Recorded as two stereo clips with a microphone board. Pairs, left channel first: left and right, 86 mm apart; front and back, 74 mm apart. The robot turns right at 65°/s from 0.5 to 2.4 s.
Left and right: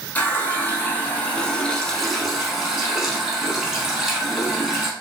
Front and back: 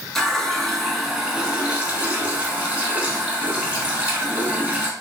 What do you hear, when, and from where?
0.1 s a running tap: 70° left, 0.7 m; by 4.9 s 165° right, 0.7 m